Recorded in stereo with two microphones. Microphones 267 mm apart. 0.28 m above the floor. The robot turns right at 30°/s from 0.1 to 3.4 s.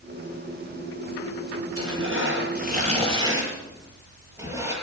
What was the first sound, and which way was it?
Tearing paper, 55° right (ahead or behind).